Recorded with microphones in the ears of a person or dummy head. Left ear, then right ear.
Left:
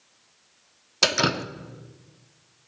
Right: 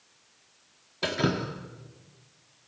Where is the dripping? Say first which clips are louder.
Left 7 dB; 65° left (ahead or behind), 1.3 m.